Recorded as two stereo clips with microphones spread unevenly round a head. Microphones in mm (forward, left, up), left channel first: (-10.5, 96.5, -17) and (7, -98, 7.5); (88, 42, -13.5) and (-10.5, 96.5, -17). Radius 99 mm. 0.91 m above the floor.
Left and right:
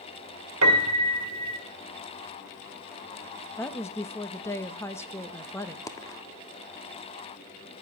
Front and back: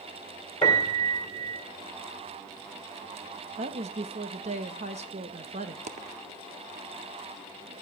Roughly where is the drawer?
No drawer in this recording.